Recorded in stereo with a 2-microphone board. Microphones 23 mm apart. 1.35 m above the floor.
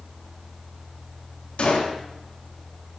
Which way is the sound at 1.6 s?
60° left (ahead or behind).